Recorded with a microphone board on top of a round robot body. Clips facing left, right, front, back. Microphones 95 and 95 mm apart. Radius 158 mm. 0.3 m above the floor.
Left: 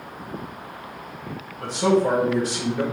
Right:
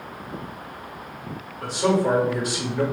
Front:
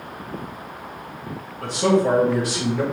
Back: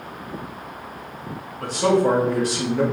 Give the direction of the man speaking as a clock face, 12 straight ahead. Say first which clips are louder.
Left 2 dB, even; 7 o'clock.